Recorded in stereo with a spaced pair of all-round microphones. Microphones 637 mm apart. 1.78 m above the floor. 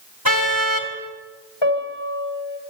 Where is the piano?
40° left (ahead or behind), 6 m.